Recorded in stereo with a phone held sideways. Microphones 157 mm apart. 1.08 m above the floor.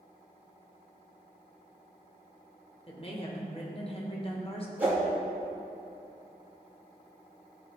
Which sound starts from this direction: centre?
A whoosh, at 4.8 s.